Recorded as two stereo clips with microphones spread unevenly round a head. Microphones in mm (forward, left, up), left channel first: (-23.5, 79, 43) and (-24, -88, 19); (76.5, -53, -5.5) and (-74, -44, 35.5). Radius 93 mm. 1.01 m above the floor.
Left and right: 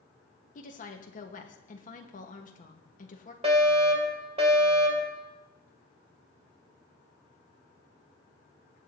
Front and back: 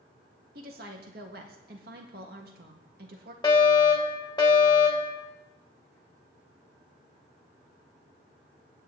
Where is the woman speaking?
135° left, 1.4 m.